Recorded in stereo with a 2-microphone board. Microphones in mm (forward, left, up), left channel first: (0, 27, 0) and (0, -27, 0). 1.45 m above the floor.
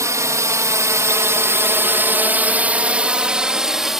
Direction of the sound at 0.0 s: 75° right (ahead or behind).